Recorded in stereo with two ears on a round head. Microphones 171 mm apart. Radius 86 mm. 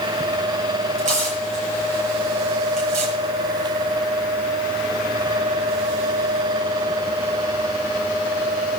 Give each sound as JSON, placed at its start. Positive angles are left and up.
{"t": 1.0, "sound": "tearing paper", "side_deg": -40, "distance_m": 7.5}